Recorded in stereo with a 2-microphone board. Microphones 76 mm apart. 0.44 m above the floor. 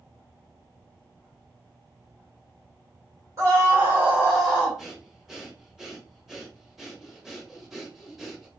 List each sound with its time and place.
3.4 s a scream: 40° right (ahead or behind), 1.5 m; by 4.8 s 15° left (ahead or behind), 1.3 m
4.8 s breathing: 5° right (ahead or behind), 0.8 m